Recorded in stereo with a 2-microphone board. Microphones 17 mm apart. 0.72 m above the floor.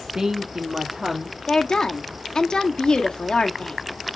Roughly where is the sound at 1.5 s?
Left.